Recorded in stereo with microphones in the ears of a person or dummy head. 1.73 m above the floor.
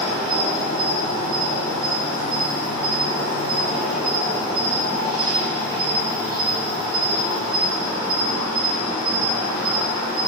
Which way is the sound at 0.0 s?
20° left (ahead or behind).